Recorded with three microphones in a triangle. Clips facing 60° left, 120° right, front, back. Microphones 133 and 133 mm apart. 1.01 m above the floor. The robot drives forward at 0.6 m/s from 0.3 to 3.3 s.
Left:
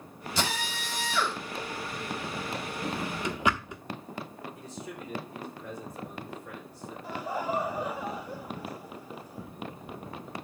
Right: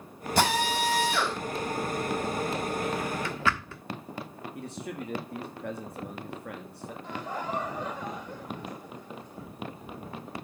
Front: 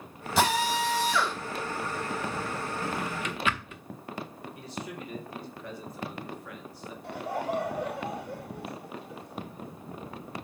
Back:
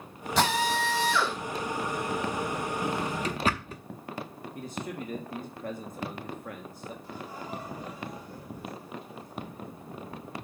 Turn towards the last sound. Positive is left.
turn(degrees=-20)